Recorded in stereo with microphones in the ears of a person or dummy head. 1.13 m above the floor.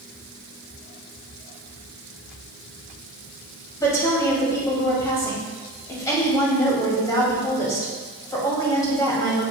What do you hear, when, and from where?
3.8 s a woman speaking: 20° left (ahead or behind), 2.5 m